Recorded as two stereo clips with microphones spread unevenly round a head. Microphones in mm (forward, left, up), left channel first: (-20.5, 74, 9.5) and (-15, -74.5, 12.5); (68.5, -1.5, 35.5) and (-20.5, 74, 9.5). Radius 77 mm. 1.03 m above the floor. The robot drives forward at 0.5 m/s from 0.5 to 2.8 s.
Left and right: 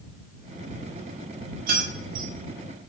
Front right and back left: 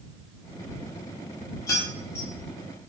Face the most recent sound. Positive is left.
turn(degrees=-125)